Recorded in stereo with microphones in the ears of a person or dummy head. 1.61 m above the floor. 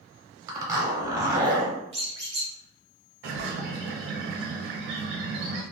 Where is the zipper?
15° right (ahead or behind), 0.8 m.